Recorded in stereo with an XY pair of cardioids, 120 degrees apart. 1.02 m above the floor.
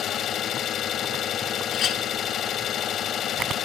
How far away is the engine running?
About 1.9 m.